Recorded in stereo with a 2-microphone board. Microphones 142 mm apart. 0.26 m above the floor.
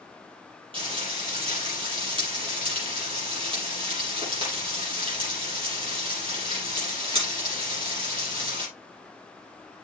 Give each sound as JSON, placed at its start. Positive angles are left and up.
{"t": 0.7, "sound": "frying", "side_deg": -40, "distance_m": 6.5}